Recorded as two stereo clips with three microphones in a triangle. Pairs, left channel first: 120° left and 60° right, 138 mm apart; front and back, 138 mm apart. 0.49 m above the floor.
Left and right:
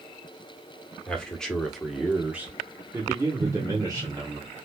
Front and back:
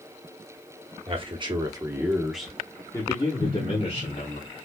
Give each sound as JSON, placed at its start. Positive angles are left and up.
{"t": 1.1, "sound": "a man speaking", "azimuth_deg": -160, "distance_m": 1.1}
{"t": 3.4, "sound": "an explosion", "azimuth_deg": -65, "distance_m": 1.9}